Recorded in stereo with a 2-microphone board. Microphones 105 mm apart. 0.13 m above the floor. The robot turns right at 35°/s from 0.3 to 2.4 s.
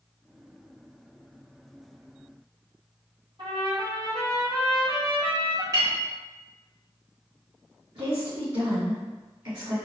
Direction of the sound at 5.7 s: 35° right (ahead or behind).